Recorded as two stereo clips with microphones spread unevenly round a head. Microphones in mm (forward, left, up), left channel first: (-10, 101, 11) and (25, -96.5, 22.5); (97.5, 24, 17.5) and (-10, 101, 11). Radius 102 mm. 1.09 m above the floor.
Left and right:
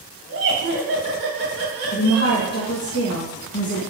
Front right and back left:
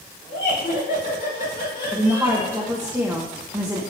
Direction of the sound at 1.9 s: 70° left.